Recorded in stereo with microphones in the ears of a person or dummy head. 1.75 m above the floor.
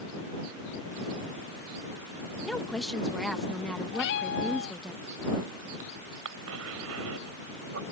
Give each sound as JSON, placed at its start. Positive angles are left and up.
{"t": 2.4, "sound": "a woman speaking", "side_deg": 5}
{"t": 3.9, "sound": "a cat meowing", "side_deg": 65}
{"t": 6.2, "sound": "a cough", "side_deg": -85}